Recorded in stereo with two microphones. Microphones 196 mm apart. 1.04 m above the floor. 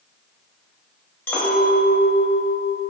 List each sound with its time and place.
1.3 s a clink: 10° left (ahead or behind), 1.1 m